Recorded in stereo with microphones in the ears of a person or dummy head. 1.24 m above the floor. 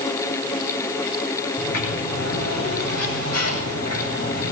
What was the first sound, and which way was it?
A sliding door, 85° left.